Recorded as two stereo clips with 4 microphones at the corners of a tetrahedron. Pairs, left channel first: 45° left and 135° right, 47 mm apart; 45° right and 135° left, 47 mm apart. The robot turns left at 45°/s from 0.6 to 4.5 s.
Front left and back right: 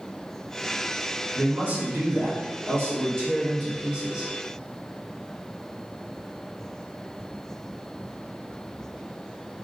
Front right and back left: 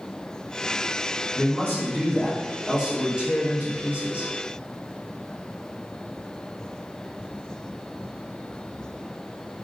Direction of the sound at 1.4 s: 80° right.